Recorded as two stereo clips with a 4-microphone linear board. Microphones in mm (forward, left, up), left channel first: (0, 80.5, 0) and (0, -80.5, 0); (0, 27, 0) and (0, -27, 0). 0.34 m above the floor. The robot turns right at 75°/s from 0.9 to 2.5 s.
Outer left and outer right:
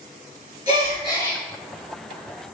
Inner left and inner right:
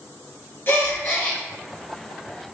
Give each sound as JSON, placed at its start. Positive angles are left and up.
{"t": 0.7, "sound": "a gasp", "azimuth_deg": 140, "distance_m": 2.0}